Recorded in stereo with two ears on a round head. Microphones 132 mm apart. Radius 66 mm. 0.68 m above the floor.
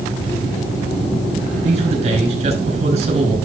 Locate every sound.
1.6 s a man speaking: 45° right (ahead or behind), 5 m